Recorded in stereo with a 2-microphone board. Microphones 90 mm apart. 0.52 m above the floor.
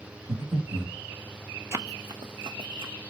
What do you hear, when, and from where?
0.3 s breathing: 55° right (ahead or behind), 2.5 m
1.7 s running footsteps: 30° right (ahead or behind), 0.6 m; by 2.9 s 70° right (ahead or behind), 1.8 m